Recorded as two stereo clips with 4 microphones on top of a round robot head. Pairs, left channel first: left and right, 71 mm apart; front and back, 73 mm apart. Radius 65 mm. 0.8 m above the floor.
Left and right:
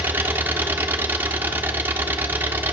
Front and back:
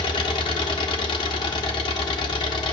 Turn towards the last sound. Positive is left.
turn(degrees=-25)